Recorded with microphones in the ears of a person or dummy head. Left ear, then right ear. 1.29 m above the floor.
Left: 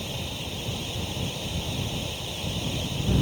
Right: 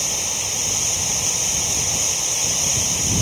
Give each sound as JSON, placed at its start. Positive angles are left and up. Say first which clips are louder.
{"t": 0.0, "sound": "running water", "louder": "right 10 dB", "side_deg": -65}